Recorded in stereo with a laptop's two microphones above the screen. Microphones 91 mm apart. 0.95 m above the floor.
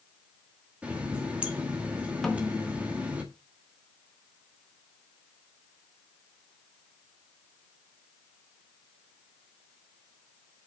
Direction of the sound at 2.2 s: 5° left (ahead or behind).